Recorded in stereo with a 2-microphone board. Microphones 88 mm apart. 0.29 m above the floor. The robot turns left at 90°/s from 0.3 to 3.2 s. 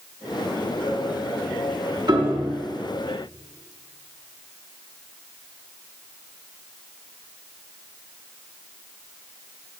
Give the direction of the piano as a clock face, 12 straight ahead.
2 o'clock.